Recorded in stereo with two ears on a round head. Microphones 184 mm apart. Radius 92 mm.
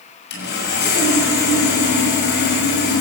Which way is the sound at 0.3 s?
55° left (ahead or behind).